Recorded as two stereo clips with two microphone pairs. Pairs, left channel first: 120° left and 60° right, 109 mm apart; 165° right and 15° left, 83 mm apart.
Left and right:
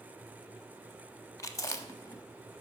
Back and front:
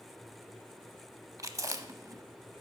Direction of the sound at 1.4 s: 60° left.